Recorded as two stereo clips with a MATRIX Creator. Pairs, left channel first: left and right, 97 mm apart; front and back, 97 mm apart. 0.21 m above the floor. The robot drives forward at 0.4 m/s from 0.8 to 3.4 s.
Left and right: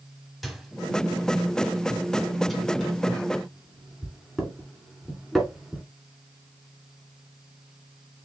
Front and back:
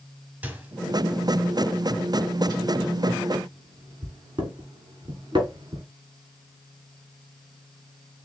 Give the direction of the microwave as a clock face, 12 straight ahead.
6 o'clock.